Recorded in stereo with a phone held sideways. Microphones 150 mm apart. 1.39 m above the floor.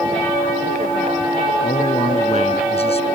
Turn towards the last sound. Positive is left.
turn(degrees=40)  # may be behind; listen again after turning